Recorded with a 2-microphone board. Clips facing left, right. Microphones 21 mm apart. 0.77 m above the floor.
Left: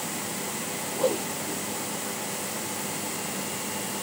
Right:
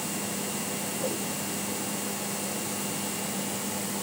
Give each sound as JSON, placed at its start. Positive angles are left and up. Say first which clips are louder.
{"t": 1.0, "sound": "a whoosh", "louder": "left 9 dB", "side_deg": 75}